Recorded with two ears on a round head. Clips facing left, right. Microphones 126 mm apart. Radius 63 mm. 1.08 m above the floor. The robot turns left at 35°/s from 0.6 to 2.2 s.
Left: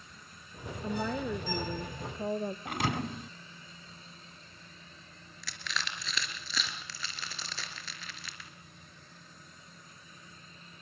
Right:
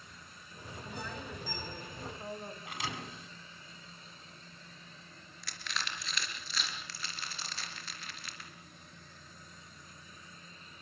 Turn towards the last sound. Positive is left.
turn(degrees=65)  # may be behind; listen again after turning